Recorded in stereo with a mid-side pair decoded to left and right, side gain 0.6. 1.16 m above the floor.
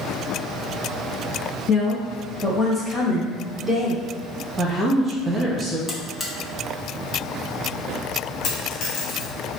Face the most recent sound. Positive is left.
turn(degrees=65)